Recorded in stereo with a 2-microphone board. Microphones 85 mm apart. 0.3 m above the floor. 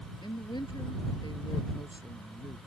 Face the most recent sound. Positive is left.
turn(degrees=60)  # may be behind; listen again after turning